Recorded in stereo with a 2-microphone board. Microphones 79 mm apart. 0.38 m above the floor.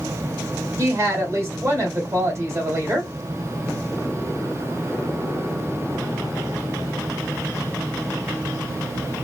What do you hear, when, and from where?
0.8 s a woman speaking: 35° right (ahead or behind), 1.4 m